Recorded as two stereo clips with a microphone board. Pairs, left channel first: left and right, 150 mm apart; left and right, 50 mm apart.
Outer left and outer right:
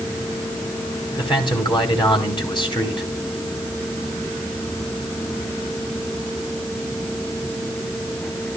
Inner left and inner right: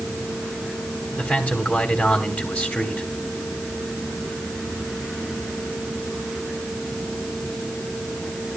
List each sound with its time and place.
1.2 s a man speaking: 30° left (ahead or behind), 3 m